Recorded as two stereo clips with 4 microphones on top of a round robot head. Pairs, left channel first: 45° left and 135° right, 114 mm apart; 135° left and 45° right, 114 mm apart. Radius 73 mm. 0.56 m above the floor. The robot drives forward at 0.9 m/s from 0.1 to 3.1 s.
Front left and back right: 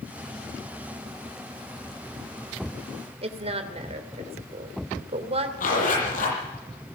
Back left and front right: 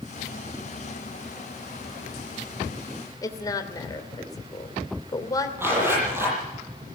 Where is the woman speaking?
165° right, 2.5 m.